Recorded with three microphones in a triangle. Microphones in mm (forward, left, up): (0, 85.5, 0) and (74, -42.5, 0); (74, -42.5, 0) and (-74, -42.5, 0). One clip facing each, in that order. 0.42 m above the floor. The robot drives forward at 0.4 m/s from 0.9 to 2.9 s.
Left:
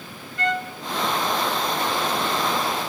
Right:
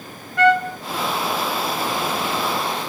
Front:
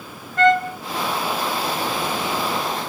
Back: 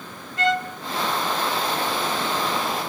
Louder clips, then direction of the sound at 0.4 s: Right 10 dB, front 7 dB; 40° right.